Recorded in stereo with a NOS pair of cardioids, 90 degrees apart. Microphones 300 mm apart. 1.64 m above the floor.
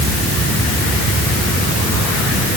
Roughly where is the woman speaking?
No woman speaking in this recording.